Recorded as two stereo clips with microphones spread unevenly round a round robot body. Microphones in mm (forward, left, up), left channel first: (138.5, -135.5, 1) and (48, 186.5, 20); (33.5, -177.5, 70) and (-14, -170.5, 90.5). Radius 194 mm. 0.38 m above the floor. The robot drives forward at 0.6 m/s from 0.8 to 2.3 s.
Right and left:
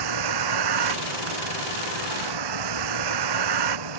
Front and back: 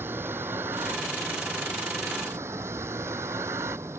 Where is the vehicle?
100° left; by 4.0 s 105° left.